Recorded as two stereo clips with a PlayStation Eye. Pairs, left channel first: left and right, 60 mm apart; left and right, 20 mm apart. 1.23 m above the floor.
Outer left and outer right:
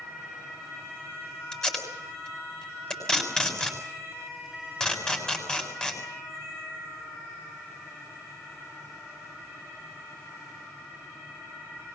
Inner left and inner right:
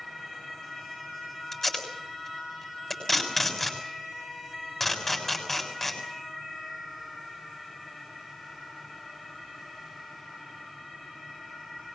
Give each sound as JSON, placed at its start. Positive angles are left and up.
{"t": 1.5, "sound": "tape being pulled", "side_deg": 10, "distance_m": 6.5}